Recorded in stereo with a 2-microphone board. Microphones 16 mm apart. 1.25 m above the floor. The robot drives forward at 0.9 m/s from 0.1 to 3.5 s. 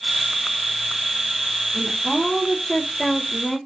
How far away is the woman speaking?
About 3.5 m.